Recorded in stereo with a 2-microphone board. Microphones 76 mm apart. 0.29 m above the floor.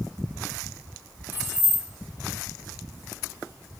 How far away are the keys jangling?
About 1.2 m.